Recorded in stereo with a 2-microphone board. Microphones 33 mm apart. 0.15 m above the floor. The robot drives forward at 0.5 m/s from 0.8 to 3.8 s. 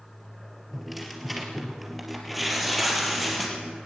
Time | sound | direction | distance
0.7 | tearing paper | centre (ahead or behind) | 3 m